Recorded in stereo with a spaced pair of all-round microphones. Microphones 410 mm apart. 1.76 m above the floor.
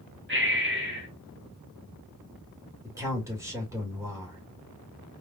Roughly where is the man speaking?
Centre.